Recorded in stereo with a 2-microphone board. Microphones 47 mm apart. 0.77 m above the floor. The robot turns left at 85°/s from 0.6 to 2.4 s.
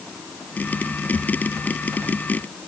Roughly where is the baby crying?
No baby crying in this recording.